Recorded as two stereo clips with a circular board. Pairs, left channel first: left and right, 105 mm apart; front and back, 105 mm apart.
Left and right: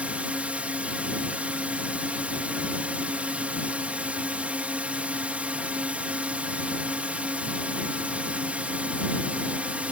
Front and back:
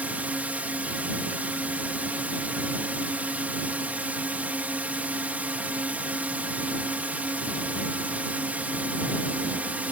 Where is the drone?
140° right.